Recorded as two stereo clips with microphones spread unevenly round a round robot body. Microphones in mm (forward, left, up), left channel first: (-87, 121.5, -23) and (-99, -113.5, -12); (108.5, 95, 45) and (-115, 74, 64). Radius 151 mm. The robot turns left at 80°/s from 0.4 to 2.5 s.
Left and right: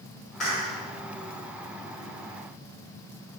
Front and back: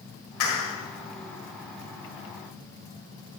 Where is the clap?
Straight ahead, 4 m; by 0.8 s 30° right, 4 m.